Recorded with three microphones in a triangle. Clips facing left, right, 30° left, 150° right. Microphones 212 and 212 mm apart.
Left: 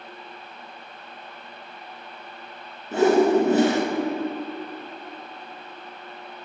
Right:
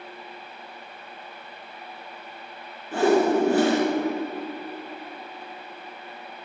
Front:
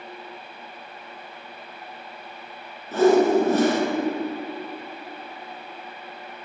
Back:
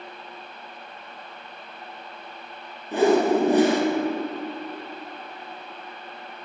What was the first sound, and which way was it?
A whoosh, 145° left.